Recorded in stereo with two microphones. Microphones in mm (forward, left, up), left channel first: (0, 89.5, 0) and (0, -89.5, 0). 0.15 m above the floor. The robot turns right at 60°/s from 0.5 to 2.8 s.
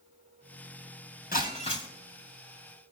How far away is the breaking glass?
About 3.5 m.